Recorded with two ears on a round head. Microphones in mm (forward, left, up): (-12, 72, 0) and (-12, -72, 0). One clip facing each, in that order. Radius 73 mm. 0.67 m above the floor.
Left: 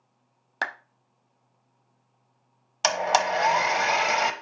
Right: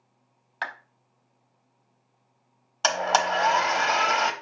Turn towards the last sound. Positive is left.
turn(degrees=15)  # may be behind; listen again after turning